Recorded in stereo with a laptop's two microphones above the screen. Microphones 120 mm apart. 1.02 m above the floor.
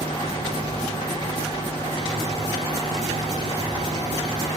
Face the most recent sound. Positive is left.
turn(degrees=-45)  # may be behind; listen again after turning